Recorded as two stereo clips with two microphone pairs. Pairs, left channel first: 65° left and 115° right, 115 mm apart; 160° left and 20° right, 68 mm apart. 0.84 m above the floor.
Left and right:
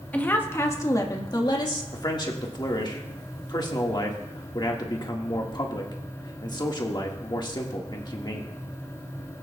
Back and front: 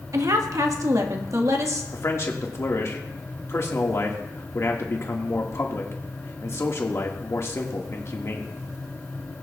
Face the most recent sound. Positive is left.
turn(degrees=115)